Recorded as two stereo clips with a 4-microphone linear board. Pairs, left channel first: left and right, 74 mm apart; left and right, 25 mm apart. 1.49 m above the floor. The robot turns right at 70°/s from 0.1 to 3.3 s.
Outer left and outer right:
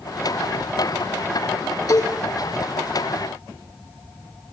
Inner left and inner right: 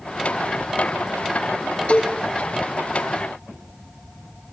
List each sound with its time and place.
1.9 s a cowbell: 55° left (ahead or behind), 3 m; by 2.2 s 35° left (ahead or behind), 3 m